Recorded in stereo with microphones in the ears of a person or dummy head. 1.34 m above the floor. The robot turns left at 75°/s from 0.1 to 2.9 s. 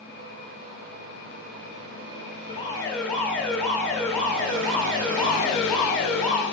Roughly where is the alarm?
Ahead left.